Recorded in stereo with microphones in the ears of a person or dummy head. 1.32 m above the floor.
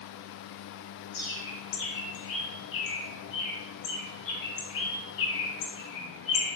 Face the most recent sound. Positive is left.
turn(degrees=70)  # may be behind; listen again after turning